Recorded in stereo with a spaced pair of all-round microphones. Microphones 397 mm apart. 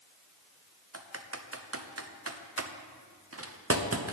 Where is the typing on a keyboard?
35° right (ahead or behind), 0.8 m.